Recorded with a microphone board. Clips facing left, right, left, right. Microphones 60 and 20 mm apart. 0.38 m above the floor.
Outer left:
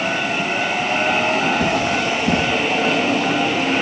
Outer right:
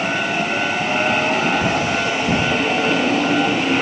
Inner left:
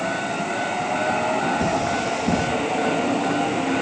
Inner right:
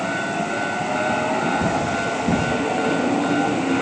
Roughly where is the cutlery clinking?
Left.